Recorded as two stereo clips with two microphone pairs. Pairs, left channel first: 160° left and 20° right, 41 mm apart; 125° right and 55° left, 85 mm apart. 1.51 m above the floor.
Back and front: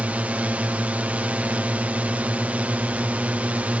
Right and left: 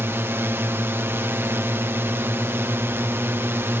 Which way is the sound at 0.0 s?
10° left.